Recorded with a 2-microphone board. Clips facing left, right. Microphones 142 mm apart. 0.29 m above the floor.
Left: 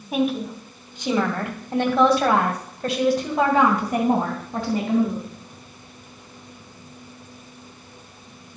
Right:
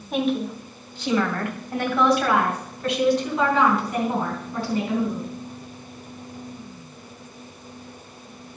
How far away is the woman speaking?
About 2.5 m.